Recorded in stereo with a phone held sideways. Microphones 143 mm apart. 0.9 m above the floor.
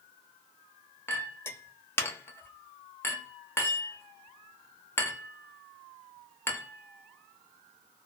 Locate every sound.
1.1 s a clink: 15° left (ahead or behind), 0.7 m